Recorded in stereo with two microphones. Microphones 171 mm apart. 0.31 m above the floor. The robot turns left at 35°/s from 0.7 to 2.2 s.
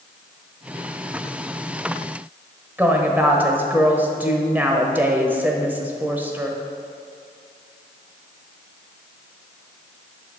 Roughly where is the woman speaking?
Centre.